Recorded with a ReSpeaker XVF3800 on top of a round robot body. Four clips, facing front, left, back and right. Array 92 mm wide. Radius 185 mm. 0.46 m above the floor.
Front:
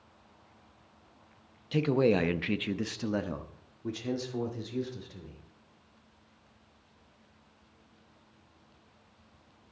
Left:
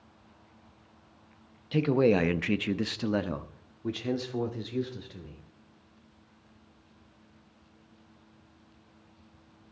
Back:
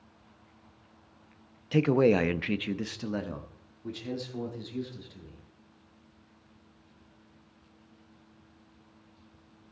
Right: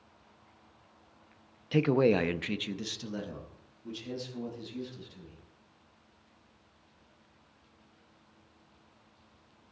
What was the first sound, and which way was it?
A man speaking, 145° right.